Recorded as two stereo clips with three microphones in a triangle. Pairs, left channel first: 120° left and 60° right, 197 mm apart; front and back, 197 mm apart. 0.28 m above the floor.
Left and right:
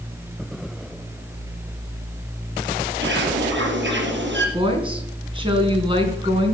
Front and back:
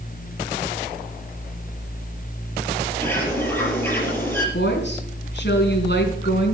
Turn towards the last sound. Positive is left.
turn(degrees=0)